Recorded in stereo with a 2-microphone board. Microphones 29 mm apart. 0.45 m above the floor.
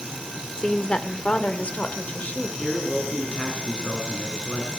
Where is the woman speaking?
20° left (ahead or behind), 1.2 m; by 2.7 s 55° left (ahead or behind), 2 m.